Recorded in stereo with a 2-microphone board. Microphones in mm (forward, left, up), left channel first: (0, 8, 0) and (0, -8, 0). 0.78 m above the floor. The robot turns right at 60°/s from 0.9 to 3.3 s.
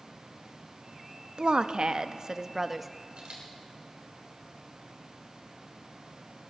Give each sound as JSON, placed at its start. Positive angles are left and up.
{"t": 1.4, "sound": "a woman speaking", "azimuth_deg": -95, "distance_m": 0.6}
{"t": 3.2, "sound": "a camera shutter", "side_deg": -75, "distance_m": 3.5}